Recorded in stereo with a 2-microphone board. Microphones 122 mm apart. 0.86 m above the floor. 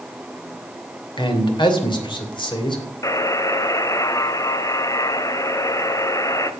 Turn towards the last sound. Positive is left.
turn(degrees=30)  # may be behind; listen again after turning